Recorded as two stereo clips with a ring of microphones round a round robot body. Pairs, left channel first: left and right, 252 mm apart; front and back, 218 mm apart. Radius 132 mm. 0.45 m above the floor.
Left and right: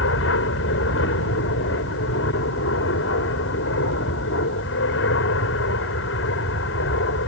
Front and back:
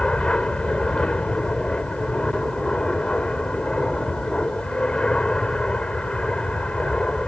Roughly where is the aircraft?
Left.